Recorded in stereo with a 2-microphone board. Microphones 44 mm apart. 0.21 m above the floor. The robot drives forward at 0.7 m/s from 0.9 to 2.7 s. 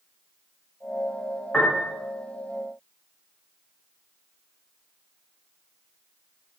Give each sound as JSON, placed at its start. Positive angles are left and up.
{"t": 1.5, "sound": "a piano", "side_deg": 30, "distance_m": 5.5}